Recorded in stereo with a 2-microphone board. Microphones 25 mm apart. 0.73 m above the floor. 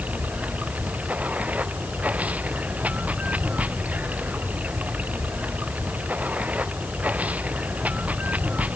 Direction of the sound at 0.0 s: 70° right (ahead or behind).